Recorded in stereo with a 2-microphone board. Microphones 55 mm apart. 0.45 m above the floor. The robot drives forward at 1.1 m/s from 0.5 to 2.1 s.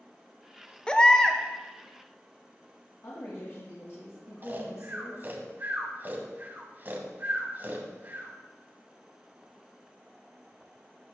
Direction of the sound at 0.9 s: 20° left (ahead or behind).